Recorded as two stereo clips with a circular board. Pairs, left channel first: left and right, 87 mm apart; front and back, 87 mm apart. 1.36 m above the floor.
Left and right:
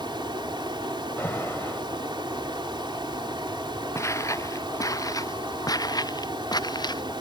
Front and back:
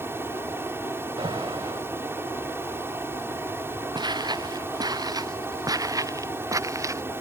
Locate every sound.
0.0 s running water: 120° right
1.2 s an alarm: 155° left
4.0 s footsteps: 145° left; by 7.0 s 125° left